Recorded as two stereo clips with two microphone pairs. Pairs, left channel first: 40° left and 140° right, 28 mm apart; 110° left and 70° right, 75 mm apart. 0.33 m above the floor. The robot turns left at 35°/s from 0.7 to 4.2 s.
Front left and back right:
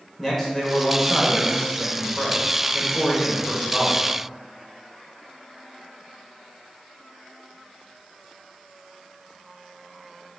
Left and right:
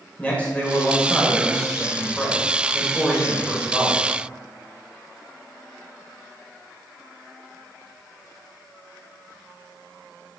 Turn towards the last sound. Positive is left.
turn(degrees=-15)